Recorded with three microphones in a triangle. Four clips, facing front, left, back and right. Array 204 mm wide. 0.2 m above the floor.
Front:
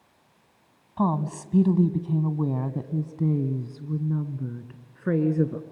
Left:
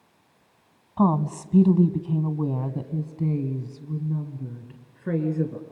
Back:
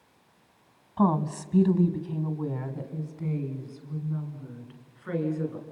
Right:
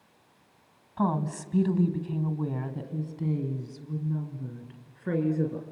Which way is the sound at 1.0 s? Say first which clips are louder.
Left 6 dB, back 1 dB; 105° left.